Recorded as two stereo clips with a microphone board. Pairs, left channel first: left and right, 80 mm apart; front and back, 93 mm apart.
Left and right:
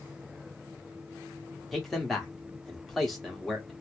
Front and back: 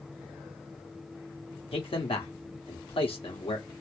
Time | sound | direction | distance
1.7 | a man speaking | straight ahead | 1.4 m